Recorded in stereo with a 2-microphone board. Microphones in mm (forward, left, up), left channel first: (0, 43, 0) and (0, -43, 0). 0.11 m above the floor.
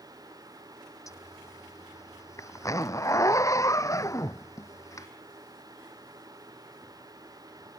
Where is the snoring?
No snoring in this recording.